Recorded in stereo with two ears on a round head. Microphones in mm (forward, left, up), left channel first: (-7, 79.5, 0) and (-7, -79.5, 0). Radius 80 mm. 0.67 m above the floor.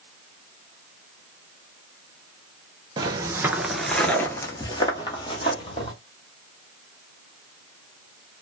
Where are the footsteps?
25° right (ahead or behind), 0.7 m; by 5.9 s 30° left (ahead or behind), 1.4 m.